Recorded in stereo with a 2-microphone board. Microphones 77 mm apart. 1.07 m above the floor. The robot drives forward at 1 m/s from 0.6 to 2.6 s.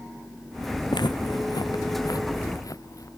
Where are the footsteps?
70° left (ahead or behind); by 3.1 s 45° left (ahead or behind).